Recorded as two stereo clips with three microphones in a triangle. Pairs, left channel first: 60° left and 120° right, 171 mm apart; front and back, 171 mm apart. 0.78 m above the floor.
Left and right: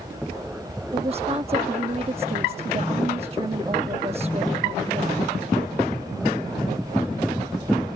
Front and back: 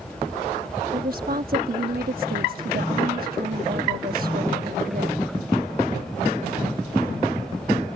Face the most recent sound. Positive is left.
turn(degrees=-170)